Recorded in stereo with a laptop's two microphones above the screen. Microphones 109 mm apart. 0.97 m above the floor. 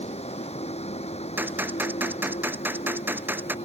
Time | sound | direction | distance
0.0 | a vehicle | 75° left (ahead or behind) | ?
1.4 | a gunshot | 15° right (ahead or behind) | ?